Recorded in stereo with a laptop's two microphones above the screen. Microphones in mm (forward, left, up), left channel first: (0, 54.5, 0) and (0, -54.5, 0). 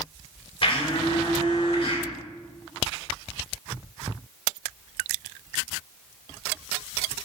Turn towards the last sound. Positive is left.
turn(degrees=50)  # may be behind; listen again after turning